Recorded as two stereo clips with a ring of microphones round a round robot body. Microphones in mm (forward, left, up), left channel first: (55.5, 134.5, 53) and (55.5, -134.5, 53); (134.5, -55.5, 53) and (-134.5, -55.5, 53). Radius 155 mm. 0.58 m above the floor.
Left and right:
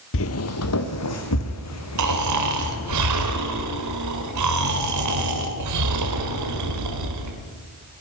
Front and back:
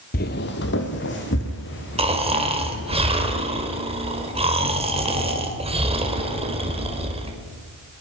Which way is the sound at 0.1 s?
60° left.